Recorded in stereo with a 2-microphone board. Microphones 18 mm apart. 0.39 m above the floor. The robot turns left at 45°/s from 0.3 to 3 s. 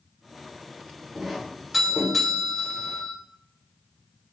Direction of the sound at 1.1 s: 10° right (ahead or behind).